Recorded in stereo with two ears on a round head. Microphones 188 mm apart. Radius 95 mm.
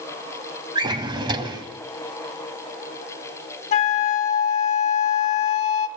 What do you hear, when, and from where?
0.8 s a drawer: 20° right (ahead or behind), 1.9 m
3.7 s a flute: 35° left (ahead or behind), 1.7 m